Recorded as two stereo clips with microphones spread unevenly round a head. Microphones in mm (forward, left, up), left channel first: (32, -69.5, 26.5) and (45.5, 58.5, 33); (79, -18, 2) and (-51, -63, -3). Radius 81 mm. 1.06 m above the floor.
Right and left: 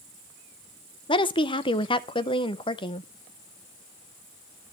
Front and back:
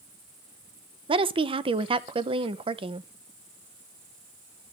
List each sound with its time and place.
1.1 s a woman speaking: 125° right, 0.6 m